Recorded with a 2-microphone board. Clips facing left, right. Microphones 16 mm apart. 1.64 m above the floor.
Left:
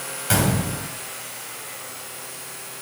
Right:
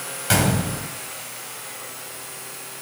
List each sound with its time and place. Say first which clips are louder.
0.3 s a gunshot: right 1 dB; 10° right (ahead or behind), 2.5 m